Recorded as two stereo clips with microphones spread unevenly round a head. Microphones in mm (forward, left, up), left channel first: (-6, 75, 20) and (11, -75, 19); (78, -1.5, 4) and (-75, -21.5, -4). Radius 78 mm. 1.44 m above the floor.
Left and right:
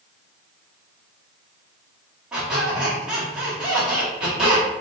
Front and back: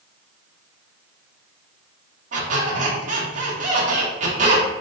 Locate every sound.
2.3 s a squeak: 165° right, 1.1 m